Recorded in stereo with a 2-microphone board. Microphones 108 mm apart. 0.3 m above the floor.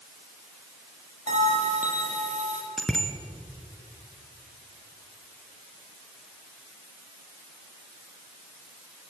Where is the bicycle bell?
5° left (ahead or behind), 3 m.